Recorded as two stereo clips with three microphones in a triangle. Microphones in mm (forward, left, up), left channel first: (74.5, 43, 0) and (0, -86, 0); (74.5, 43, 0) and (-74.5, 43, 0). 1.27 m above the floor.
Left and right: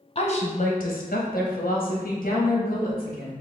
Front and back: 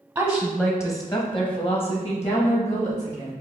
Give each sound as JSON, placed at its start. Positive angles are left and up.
{"t": 0.1, "sound": "a woman speaking", "azimuth_deg": 105, "distance_m": 0.6}